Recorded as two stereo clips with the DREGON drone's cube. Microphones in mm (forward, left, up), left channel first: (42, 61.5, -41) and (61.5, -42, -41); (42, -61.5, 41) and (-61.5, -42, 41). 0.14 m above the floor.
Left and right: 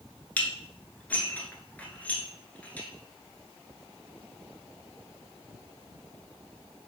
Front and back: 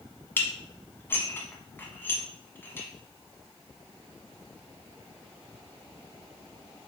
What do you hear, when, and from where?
0.4 s dishes clattering: 40° left, 0.9 m